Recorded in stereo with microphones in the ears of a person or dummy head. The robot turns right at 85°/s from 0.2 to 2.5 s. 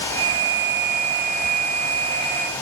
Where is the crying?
I don't hear crying.